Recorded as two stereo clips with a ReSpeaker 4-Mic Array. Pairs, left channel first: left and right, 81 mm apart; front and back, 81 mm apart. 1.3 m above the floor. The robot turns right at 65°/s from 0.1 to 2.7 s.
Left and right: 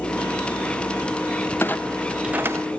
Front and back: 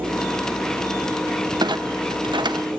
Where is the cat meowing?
I don't hear a cat meowing.